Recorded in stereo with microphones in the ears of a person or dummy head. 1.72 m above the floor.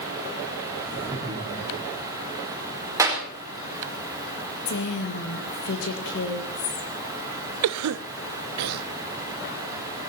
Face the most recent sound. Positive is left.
turn(degrees=-85)